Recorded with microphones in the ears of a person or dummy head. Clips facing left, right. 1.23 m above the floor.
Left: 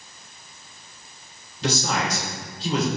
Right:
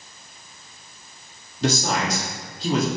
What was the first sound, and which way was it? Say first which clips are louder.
A man speaking: right 2 dB; 40° right (ahead or behind).